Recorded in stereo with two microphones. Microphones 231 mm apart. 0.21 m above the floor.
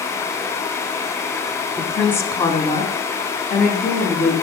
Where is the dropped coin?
I don't hear a dropped coin.